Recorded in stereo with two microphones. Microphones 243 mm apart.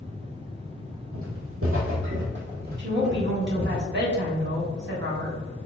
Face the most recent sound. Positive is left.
turn(degrees=-50)  # may be behind; listen again after turning